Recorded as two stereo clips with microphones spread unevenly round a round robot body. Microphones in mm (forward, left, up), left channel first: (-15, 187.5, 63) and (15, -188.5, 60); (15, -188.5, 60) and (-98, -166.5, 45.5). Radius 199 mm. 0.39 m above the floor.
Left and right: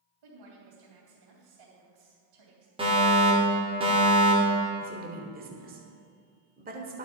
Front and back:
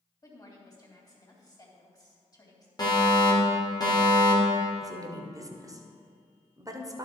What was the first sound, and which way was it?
A woman speaking, 70° right.